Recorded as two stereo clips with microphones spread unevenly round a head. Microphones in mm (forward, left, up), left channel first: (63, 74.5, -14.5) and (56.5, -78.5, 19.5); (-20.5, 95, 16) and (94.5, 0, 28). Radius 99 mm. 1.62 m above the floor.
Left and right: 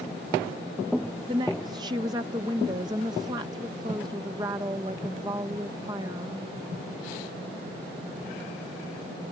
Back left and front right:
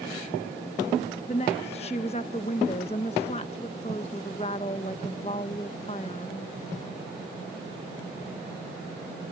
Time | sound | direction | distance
1.3 | a woman speaking | 155° right | ?